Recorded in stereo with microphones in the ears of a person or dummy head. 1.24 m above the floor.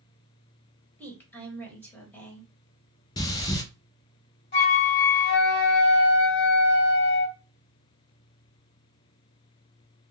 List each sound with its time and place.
1.0 s a woman speaking: 5° left (ahead or behind), 1.1 m
3.2 s breathing: 20° left (ahead or behind), 0.5 m
4.5 s a flute: 40° left (ahead or behind), 1.3 m